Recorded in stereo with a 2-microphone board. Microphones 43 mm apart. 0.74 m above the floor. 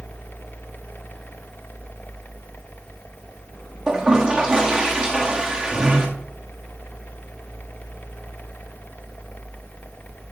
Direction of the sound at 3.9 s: 20° right (ahead or behind).